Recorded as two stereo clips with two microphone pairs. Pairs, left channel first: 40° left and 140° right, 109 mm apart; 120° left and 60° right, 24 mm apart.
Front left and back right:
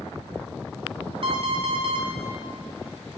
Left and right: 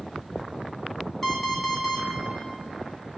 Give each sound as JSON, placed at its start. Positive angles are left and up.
{"t": 1.2, "sound": "an alarm clock", "azimuth_deg": -160, "distance_m": 1.2}